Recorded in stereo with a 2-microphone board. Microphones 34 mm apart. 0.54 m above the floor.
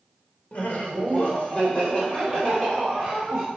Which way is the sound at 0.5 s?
50° left (ahead or behind).